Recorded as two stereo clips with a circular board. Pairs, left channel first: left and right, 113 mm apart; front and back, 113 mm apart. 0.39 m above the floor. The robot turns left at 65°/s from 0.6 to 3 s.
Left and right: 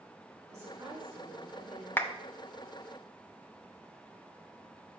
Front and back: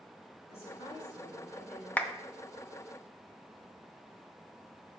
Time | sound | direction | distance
0.5 | a woman speaking | 25° right | 3.5 m
2.0 | a clap | 55° left | 0.6 m